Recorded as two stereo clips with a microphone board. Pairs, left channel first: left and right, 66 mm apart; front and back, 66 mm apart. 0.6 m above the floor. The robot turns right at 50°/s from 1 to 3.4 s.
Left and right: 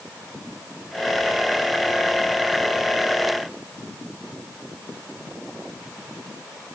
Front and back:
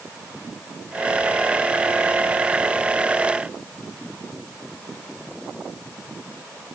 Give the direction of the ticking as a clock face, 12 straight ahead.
I don't hear ticking.